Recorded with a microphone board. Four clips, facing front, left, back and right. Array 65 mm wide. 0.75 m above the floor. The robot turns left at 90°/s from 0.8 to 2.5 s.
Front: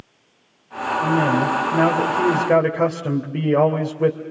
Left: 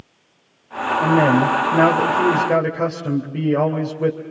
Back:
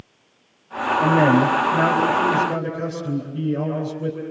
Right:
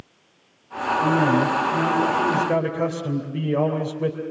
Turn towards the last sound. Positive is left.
turn(degrees=10)